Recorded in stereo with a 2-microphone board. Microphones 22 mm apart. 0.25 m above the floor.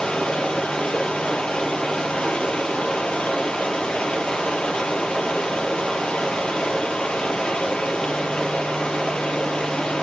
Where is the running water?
60° left (ahead or behind), 4.5 m.